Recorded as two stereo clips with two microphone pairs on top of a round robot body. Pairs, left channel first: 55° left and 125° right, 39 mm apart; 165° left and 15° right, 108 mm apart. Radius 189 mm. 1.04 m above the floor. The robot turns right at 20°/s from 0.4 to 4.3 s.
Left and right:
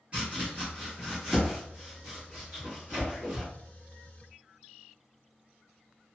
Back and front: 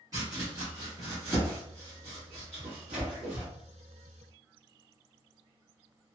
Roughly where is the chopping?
Right.